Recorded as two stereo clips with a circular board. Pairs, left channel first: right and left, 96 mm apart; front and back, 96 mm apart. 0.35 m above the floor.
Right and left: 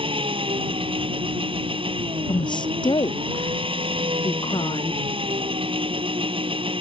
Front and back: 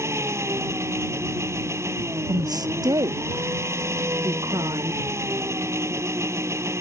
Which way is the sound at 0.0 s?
120° left.